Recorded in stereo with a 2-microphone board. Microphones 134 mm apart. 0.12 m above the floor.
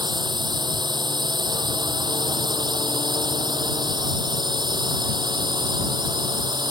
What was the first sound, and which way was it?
A drone, 30° right (ahead or behind).